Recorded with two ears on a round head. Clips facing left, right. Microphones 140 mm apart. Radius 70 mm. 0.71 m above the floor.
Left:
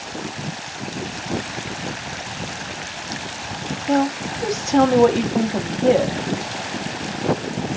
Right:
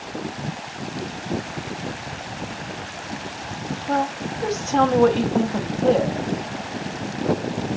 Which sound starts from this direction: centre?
A woman speaking, at 3.9 s.